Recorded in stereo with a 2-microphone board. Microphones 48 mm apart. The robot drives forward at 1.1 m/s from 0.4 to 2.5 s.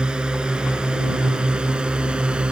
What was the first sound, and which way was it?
A drone, 20° right (ahead or behind).